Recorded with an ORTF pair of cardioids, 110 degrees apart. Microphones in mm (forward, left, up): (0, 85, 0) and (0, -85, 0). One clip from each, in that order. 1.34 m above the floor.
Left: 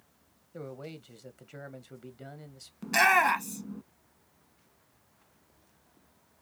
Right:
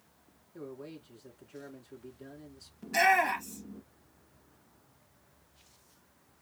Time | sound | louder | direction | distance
0.5 | a man speaking | left 2 dB | 65° left | 1.3 m
2.8 | a shout | left 3 dB | 60° left | 1.4 m